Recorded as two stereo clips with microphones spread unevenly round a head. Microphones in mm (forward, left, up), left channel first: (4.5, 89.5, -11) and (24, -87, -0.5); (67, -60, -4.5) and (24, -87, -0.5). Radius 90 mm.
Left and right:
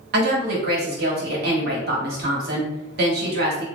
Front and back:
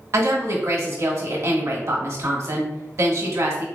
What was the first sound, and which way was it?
A woman speaking, 125° right.